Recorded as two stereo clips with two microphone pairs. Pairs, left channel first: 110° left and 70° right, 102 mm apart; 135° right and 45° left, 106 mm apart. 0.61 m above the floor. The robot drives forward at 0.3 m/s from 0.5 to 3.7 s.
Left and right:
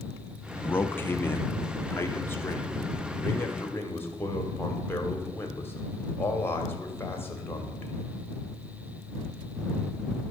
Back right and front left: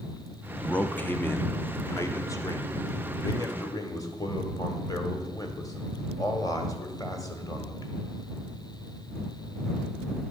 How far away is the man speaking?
About 0.6 m.